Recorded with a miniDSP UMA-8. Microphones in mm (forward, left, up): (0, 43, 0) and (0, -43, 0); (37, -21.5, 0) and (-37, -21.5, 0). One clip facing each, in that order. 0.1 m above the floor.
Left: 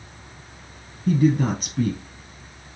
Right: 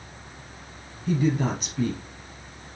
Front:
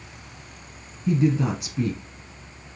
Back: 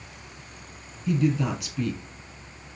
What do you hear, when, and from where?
1.1 s a woman speaking: 50° left, 2.5 m